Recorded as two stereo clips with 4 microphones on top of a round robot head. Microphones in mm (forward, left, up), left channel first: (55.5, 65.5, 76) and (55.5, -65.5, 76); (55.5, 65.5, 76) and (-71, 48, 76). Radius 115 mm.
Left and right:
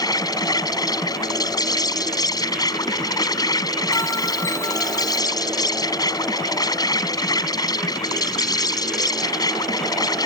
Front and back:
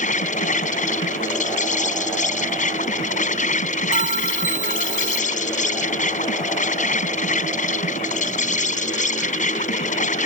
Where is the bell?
165° left.